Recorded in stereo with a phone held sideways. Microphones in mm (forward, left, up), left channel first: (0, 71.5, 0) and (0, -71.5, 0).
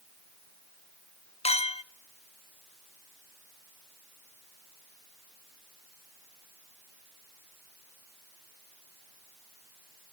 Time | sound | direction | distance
1.4 | a clink | 45° left (ahead or behind) | 0.5 m